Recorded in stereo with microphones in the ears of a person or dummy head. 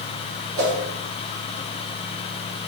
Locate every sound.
0.6 s a whoosh: 60° right (ahead or behind), 1.0 m